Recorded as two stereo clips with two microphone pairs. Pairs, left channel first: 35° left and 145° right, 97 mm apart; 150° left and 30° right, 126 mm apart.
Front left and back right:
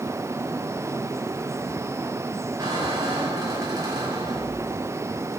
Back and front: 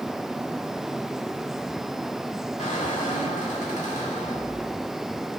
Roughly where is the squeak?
Behind.